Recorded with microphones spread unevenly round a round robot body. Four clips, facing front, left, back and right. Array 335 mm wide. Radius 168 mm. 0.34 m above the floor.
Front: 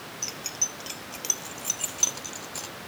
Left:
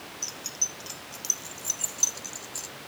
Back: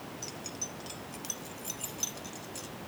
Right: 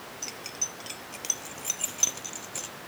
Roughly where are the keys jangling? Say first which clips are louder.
Right 1 dB, front 2 dB; ahead right.